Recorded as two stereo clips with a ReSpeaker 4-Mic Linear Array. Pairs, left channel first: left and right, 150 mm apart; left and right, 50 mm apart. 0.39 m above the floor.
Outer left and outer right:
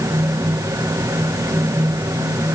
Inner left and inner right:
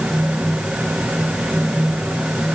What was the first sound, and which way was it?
Only background noise.